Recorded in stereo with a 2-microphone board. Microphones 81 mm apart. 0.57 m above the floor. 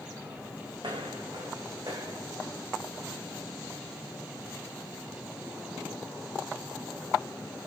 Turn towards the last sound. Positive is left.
turn(degrees=-25)  # may be behind; listen again after turning